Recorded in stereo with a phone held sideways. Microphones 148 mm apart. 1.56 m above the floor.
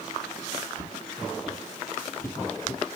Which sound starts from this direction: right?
Footsteps, at 0.8 s.